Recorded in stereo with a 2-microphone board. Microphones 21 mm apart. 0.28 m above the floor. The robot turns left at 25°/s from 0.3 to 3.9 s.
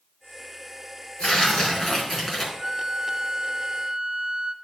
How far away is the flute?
About 0.9 m.